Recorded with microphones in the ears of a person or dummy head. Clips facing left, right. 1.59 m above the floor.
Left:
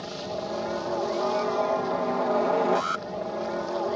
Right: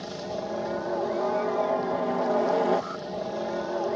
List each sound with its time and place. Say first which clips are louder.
0.0 s a helicopter: even; 5° left (ahead or behind)
2.8 s an alarm: left 1 dB; 85° left